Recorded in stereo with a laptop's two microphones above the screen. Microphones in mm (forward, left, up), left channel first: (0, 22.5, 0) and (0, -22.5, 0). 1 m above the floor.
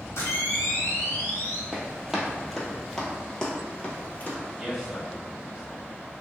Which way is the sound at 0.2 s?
80° left.